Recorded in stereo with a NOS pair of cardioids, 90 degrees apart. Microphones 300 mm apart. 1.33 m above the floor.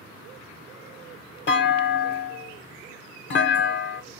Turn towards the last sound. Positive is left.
turn(degrees=40)